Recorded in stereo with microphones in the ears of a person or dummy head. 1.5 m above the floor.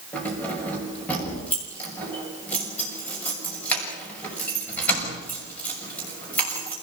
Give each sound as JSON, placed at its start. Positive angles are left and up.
{"t": 0.1, "sound": "keys jangling", "side_deg": 10, "distance_m": 6.5}